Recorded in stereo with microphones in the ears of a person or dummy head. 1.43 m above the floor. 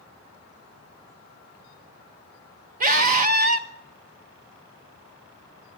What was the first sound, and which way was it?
A scream, 50° right (ahead or behind).